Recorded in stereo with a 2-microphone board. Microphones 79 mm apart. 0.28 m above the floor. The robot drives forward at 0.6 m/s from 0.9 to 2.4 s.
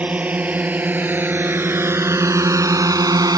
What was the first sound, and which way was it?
A drone, 20° right (ahead or behind).